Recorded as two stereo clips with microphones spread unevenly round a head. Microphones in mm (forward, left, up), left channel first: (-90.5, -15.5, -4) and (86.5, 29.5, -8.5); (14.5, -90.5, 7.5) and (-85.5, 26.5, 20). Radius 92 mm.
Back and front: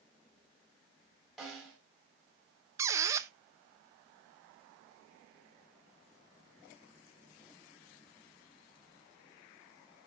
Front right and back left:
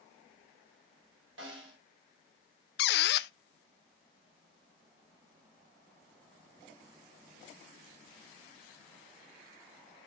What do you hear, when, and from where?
1.4 s a snare drum: 105° left, 4 m
2.8 s a squeak: 60° right, 0.5 m